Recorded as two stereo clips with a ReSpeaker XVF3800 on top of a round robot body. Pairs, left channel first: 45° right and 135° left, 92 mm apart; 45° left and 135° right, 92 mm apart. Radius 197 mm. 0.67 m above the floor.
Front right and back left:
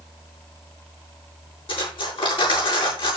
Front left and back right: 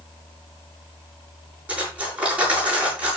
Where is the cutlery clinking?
60° right, 8.5 m.